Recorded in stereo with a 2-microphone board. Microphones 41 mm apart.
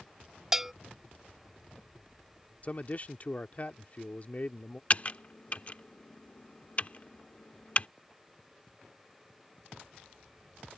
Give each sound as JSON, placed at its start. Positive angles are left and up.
{"t": 0.5, "sound": "a bell", "side_deg": -10}
{"t": 2.6, "sound": "a man speaking", "side_deg": 40}
{"t": 4.9, "sound": "typing on a keyboard", "side_deg": 35}